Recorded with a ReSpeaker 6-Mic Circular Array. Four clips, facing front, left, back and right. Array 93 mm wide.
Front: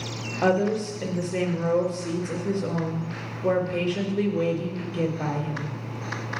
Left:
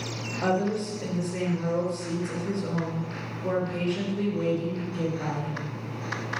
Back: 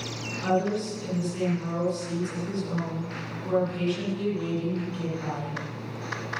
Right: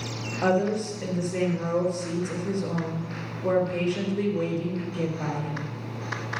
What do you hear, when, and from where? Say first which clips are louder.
0.4 s a woman speaking: right 2 dB, front 3 dB; 15° right, 3.5 m